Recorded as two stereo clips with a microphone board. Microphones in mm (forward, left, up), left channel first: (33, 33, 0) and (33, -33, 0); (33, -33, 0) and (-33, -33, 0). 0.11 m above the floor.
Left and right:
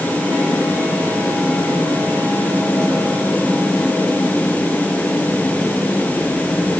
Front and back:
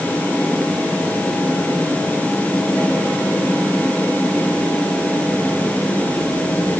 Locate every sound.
Only background noise.